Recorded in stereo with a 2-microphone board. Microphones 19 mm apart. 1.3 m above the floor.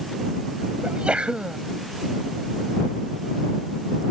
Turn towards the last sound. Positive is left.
turn(degrees=-75)  # may be behind; listen again after turning